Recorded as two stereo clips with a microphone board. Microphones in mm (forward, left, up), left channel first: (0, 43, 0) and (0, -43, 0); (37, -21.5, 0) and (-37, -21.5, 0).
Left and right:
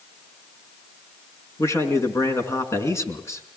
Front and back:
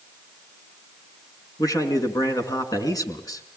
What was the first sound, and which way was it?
A man speaking, 35° left.